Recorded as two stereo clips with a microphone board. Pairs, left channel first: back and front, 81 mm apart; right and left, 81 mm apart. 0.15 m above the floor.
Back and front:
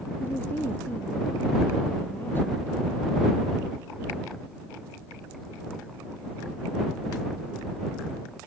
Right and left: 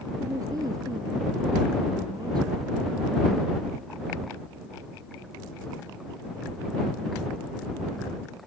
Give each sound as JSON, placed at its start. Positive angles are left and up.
{"t": 0.2, "sound": "a woman speaking", "azimuth_deg": 120}